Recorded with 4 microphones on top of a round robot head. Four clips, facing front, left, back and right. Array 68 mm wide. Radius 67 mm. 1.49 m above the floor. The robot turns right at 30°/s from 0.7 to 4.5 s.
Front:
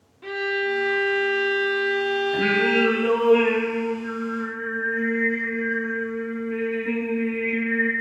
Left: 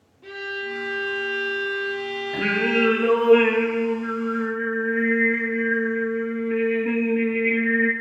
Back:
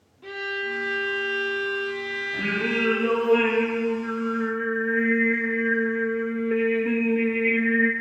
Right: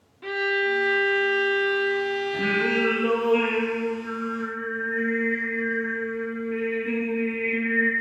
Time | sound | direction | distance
0.2 | a violin | 65° right | 1.2 m
2.3 | singing | 60° left | 2.0 m